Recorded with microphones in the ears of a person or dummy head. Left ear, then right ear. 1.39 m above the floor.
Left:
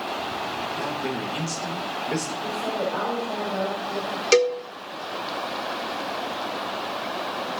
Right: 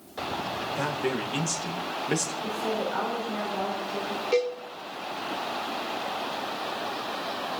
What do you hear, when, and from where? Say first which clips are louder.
0.6 s a man speaking: left 1 dB; 45° right (ahead or behind), 1.4 m
2.4 s a woman speaking: left 2 dB; 10° left (ahead or behind), 5.5 m
4.3 s a cowbell: left 7 dB; 65° left (ahead or behind), 1.0 m